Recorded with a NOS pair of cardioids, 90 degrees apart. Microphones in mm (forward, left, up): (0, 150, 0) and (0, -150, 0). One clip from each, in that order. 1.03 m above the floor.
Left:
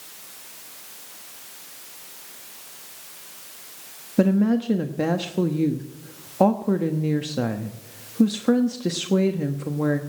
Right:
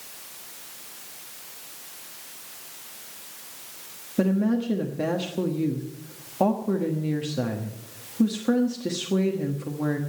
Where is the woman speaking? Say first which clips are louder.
Left 4 dB; 25° left, 1.2 m.